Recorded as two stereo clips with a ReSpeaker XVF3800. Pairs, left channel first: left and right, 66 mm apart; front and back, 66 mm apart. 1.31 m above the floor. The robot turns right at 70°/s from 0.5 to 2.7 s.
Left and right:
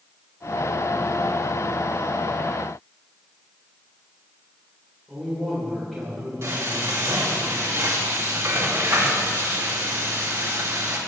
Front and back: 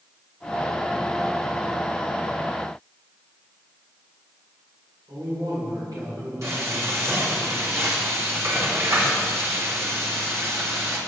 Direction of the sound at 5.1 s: Straight behind.